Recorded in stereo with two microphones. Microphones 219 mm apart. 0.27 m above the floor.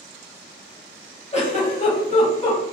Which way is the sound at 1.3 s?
30° left (ahead or behind).